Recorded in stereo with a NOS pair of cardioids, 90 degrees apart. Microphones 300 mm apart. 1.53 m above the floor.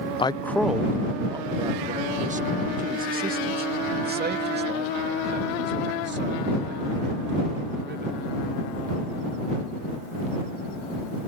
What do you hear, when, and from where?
0.2 s a man speaking: 15° left; by 8.2 s 35° right